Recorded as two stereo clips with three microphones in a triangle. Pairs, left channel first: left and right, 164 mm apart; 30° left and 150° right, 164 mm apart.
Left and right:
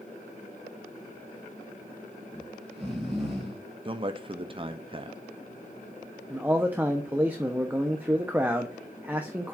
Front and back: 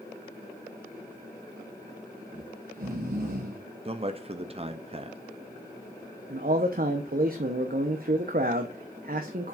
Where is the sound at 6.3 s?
170° right, 0.9 m.